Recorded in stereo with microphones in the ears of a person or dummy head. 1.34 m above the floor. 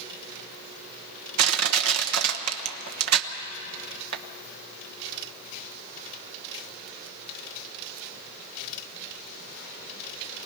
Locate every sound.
1.4 s crushing: 80° right, 1.1 m